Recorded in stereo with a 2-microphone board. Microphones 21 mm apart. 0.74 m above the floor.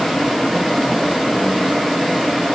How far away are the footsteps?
No footsteps in this recording.